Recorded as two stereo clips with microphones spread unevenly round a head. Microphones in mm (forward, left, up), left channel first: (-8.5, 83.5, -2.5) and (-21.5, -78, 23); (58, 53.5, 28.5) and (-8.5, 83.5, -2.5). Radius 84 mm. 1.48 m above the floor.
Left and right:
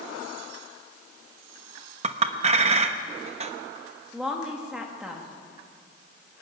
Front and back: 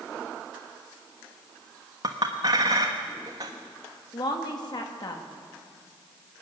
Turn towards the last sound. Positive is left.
turn(degrees=-10)